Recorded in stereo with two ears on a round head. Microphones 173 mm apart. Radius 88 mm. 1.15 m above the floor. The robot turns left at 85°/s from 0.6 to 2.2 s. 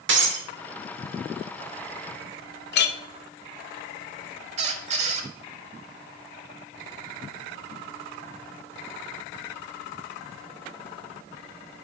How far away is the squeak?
About 1.1 m.